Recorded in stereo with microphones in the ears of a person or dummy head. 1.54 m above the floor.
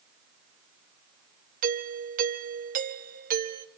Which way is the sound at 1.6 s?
45° right (ahead or behind).